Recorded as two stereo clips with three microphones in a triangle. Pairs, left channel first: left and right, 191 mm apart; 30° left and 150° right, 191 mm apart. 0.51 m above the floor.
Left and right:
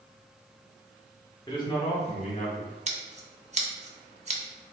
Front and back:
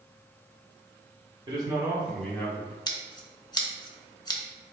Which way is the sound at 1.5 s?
155° left.